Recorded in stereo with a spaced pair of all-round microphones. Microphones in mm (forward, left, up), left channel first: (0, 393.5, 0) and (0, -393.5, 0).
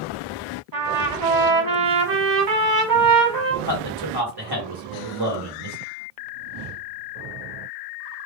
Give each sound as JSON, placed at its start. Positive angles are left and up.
{"t": 0.7, "sound": "a trumpet", "side_deg": -60, "distance_m": 1.3}
{"t": 3.6, "sound": "a man speaking", "side_deg": -30, "distance_m": 1.9}